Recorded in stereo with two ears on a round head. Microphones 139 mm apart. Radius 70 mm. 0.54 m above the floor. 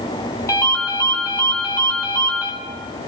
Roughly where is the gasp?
I don't hear a gasp.